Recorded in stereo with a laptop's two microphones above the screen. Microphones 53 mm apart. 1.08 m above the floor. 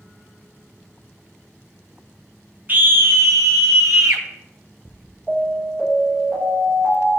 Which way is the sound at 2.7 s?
35° right (ahead or behind).